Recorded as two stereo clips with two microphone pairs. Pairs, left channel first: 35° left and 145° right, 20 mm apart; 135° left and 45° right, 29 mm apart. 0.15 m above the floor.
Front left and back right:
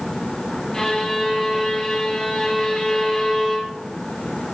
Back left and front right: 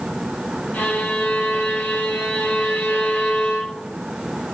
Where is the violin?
115° left, 4 m.